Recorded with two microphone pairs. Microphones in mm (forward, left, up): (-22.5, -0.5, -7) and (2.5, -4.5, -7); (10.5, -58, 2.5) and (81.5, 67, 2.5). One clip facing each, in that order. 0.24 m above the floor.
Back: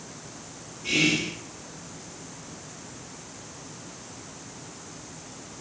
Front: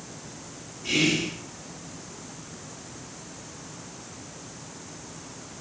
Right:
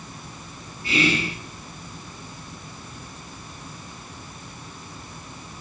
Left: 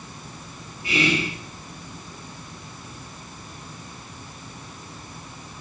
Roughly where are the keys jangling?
I don't hear keys jangling.